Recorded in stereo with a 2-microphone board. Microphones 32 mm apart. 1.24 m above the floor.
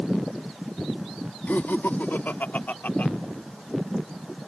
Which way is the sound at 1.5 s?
80° left.